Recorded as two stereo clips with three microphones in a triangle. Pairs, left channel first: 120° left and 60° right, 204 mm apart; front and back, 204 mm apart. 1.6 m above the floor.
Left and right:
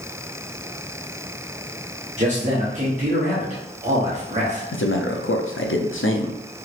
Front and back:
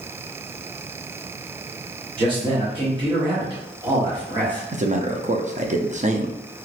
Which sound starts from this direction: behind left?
A man speaking, at 4.7 s.